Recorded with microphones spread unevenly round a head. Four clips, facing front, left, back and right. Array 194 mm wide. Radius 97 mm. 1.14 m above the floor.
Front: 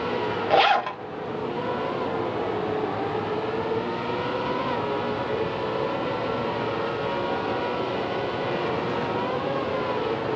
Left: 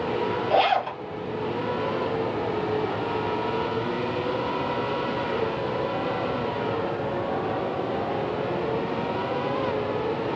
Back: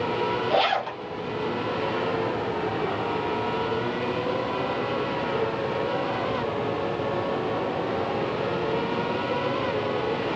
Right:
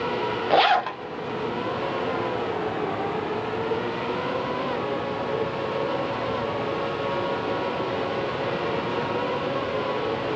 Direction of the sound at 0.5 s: 55° right.